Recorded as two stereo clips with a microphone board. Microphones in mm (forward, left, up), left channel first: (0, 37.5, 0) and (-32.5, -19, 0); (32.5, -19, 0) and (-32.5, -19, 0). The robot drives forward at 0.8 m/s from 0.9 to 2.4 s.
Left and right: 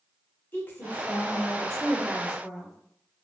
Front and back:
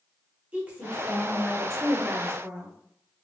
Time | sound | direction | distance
0.5 | a woman speaking | 115° left | 1.4 m